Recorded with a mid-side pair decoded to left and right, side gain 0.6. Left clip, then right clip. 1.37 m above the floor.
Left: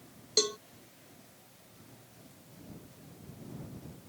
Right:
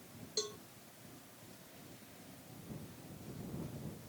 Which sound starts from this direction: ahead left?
A cowbell, at 0.4 s.